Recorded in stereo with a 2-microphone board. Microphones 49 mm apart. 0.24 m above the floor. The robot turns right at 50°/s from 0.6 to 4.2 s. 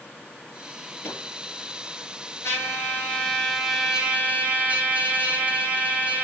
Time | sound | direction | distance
1.0 | a microwave | 55° left (ahead or behind) | 4.5 m
2.4 | a trumpet | 125° left | 2.5 m